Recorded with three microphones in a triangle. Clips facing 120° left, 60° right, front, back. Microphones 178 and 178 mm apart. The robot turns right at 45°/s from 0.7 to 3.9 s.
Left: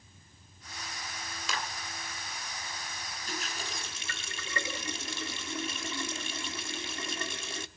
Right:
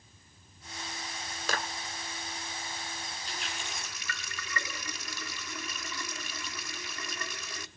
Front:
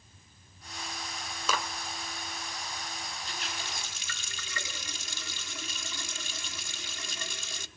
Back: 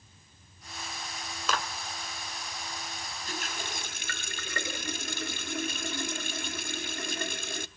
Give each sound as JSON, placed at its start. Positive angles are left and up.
{"t": 1.5, "sound": "a clap", "azimuth_deg": -90, "distance_m": 1.8}
{"t": 3.3, "sound": "a running tap", "azimuth_deg": 150, "distance_m": 0.7}